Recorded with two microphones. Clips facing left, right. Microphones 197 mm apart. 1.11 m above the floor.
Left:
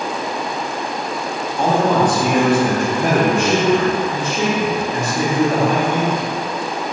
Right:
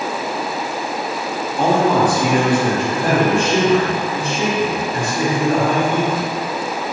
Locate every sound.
1.6 s a man speaking: 15° right (ahead or behind), 1.2 m; by 6.2 s 65° left (ahead or behind), 2.0 m